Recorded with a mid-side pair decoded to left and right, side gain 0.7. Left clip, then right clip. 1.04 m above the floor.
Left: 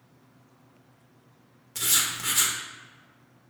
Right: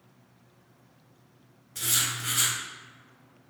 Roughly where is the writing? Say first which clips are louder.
Left 2 dB; ahead left.